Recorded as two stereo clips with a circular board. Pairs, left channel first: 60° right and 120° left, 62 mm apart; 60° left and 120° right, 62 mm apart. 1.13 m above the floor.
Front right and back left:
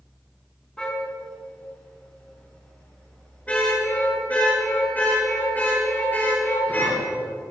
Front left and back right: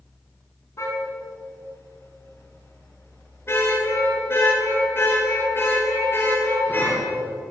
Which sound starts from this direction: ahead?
A car horn, at 0.8 s.